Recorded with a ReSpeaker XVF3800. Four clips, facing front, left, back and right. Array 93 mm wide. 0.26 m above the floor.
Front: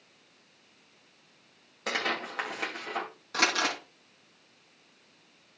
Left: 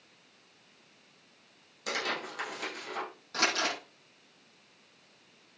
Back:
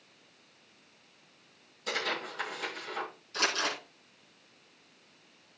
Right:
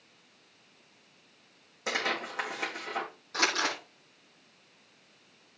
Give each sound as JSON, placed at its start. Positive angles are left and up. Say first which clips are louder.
{"t": 1.9, "sound": "tearing paper", "louder": "right 2 dB, front 3 dB", "azimuth_deg": -25, "distance_m": 6.5}
{"t": 3.3, "sound": "crumpling", "louder": "right 1 dB, front 4 dB", "azimuth_deg": 0, "distance_m": 8.5}